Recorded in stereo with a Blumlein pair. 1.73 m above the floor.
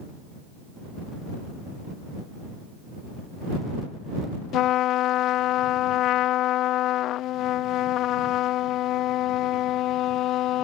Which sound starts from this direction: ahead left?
A trumpet, at 4.5 s.